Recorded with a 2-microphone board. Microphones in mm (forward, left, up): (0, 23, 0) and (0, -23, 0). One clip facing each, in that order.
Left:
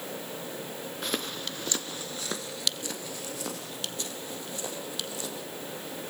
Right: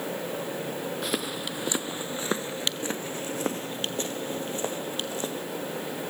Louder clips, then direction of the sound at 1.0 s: Left 1 dB; centre (ahead or behind).